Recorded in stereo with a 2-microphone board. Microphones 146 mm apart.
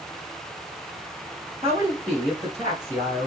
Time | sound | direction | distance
1.6 | a woman speaking | 15° right (ahead or behind) | 1.7 m